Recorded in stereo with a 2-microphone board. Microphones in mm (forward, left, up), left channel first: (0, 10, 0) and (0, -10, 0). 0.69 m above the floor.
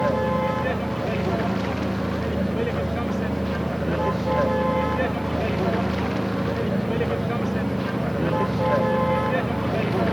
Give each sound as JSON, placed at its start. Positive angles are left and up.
{"t": 0.0, "sound": "a vehicle", "side_deg": 5}